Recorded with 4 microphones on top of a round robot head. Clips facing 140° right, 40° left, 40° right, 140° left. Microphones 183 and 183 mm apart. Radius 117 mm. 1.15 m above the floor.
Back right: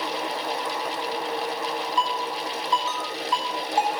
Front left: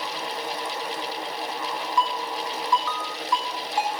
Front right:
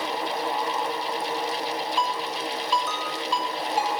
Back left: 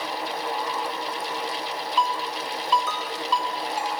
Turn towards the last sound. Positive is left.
turn(degrees=150)